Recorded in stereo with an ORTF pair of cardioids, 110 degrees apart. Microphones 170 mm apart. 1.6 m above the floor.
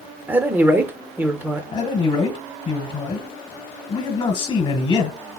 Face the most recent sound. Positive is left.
turn(degrees=30)